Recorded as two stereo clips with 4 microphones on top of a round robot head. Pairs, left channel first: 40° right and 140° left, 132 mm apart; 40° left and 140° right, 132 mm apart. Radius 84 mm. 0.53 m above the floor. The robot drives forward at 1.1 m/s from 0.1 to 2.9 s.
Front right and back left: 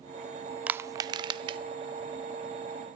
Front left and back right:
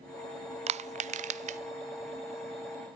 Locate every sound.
0.7 s crushing: 145° right, 0.5 m; by 1.6 s 170° right, 1.4 m